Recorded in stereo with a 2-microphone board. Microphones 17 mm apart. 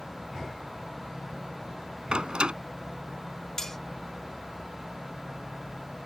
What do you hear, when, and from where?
2.1 s a door slam: 70° right (ahead or behind)
3.6 s cutlery clinking: 20° left (ahead or behind)